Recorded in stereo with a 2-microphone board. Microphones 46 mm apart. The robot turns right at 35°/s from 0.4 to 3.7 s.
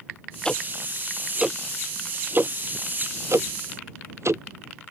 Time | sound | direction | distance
0.5 | ticking | 15° left (ahead or behind) | ?